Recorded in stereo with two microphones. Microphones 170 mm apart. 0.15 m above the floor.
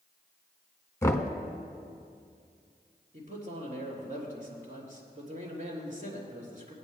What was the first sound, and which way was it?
Knocking, 15° left (ahead or behind).